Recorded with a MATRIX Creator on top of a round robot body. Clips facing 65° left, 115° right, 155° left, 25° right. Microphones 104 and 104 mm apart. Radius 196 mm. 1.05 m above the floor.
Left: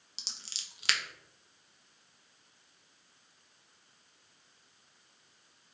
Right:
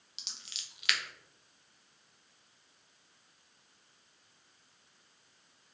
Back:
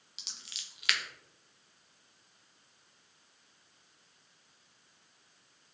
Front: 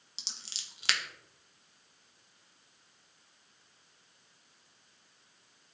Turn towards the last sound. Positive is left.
turn(degrees=25)